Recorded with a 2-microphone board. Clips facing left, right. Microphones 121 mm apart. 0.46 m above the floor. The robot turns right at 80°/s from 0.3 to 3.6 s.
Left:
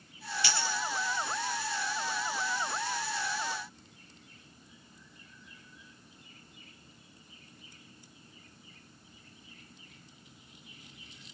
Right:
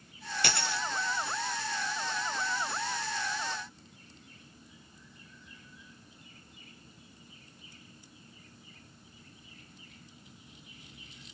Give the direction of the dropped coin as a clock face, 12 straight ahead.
4 o'clock.